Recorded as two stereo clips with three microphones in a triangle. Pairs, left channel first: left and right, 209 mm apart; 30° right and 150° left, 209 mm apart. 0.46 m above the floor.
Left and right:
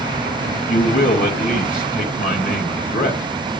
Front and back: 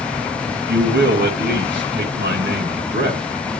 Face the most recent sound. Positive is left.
turn(degrees=130)